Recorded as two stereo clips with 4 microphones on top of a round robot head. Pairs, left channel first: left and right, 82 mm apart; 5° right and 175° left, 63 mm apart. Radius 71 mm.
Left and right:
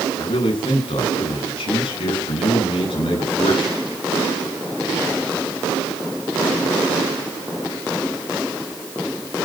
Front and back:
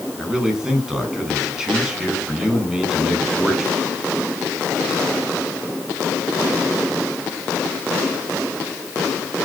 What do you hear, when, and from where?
0.2 s a man speaking: 95° left, 8 m